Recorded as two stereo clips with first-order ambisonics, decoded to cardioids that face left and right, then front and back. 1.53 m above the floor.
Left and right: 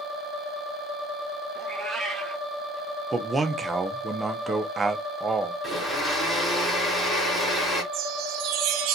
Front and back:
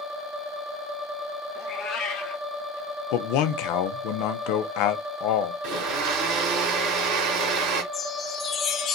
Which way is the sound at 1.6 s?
15° right.